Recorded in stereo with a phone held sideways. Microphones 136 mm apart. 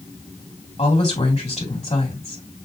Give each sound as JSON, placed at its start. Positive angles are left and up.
{"t": 0.8, "sound": "a woman speaking", "side_deg": 55, "distance_m": 2.0}